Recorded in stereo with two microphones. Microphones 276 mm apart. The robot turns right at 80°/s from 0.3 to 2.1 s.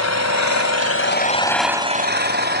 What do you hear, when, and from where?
0.0 s an engine running: 75° left, 1.9 m; by 2.6 s 140° right, 1.9 m